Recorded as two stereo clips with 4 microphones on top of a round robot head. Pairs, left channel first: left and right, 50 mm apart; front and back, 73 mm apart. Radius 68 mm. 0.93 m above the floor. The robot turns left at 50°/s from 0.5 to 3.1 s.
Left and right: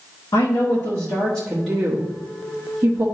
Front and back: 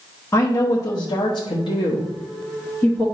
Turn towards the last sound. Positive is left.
turn(degrees=-75)